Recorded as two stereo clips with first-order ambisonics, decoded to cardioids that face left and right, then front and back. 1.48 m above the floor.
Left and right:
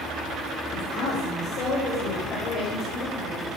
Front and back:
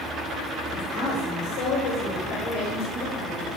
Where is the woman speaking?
40° left, 7.5 m; by 3.5 s 25° left, 8 m.